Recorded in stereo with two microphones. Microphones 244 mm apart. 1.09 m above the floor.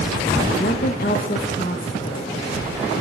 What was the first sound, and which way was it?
A woman speaking, 40° left (ahead or behind).